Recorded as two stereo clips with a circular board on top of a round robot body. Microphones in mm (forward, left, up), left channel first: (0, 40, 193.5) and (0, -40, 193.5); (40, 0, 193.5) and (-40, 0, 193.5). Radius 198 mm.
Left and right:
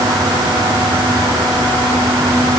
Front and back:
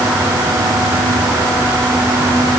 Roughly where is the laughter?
I don't hear laughter.